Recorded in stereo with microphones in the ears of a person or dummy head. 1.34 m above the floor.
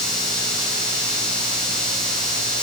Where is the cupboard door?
I don't hear a cupboard door.